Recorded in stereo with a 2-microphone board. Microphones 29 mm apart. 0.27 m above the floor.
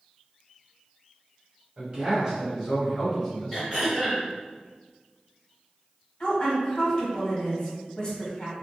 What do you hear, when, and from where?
1.8 s a man speaking: 30° right (ahead or behind), 1.4 m; by 3.6 s 10° left (ahead or behind), 1.3 m
3.5 s throat clearing: 15° right (ahead or behind), 1.7 m
6.2 s a woman speaking: 30° left (ahead or behind), 1.1 m